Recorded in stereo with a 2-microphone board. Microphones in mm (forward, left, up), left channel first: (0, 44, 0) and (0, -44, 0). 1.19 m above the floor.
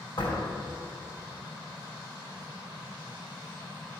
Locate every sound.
0.2 s a door slam: 55° left (ahead or behind), 2.5 m